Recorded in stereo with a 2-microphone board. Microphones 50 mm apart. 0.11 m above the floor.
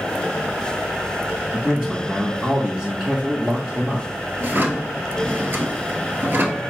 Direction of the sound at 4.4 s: 45° right (ahead or behind).